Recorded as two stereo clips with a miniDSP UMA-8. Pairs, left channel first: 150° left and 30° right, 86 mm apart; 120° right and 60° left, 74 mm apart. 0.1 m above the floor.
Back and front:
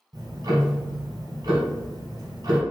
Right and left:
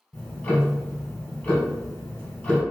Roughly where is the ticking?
Ahead right.